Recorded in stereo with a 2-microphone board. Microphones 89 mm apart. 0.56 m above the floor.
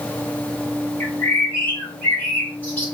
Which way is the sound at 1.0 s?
15° left (ahead or behind).